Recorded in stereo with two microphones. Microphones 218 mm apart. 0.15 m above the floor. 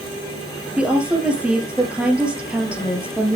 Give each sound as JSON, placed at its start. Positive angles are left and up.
{"t": 0.8, "sound": "a woman speaking", "side_deg": -5, "distance_m": 3.0}